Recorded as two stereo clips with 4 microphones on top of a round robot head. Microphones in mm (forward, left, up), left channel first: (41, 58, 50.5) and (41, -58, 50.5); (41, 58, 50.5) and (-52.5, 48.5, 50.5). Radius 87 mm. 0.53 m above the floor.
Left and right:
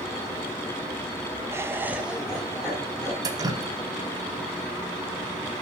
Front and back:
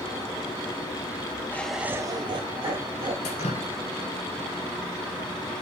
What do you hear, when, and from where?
1.5 s laughter: 40° right, 0.7 m; by 3.1 s 175° left, 1.7 m
3.2 s dripping: 35° right, 0.7 m